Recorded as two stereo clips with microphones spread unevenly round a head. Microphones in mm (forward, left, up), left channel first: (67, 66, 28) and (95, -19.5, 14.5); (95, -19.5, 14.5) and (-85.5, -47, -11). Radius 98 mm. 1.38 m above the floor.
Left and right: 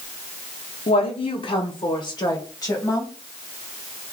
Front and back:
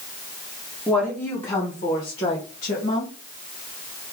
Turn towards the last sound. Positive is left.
turn(degrees=45)